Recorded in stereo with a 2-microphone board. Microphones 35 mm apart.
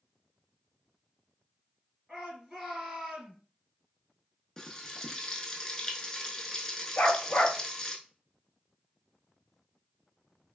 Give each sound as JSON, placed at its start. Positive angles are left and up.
{"t": 2.1, "sound": "a shout", "side_deg": -10, "distance_m": 2.0}
{"t": 4.6, "sound": "frying", "side_deg": 15, "distance_m": 0.5}
{"t": 7.0, "sound": "a dog barking", "side_deg": 50, "distance_m": 0.6}